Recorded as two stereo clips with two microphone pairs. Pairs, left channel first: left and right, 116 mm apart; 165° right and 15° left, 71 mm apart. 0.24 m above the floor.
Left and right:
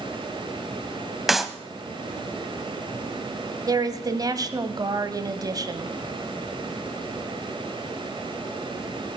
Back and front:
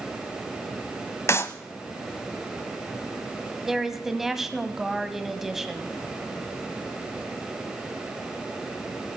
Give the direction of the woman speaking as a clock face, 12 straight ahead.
2 o'clock.